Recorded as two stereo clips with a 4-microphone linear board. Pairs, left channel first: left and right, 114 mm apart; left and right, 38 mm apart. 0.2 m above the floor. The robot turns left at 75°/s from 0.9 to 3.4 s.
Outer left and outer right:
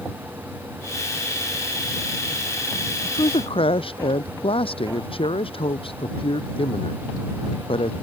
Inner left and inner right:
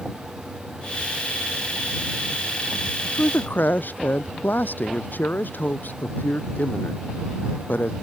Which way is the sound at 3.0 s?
25° left (ahead or behind).